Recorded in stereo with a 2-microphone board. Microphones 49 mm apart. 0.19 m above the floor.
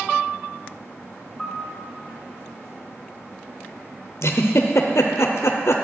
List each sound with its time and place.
1.4 s a piano: 10° left (ahead or behind), 1.7 m
4.2 s a giggle: 70° left (ahead or behind), 0.8 m